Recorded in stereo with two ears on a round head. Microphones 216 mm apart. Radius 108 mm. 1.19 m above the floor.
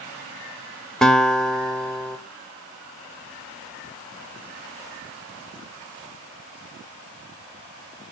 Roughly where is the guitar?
Centre.